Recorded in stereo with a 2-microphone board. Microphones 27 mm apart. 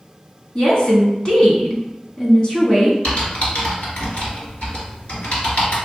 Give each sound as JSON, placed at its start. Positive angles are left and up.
{"t": 0.6, "sound": "a woman speaking", "side_deg": 35, "distance_m": 1.2}
{"t": 3.0, "sound": "typing on a keyboard", "side_deg": 55, "distance_m": 1.6}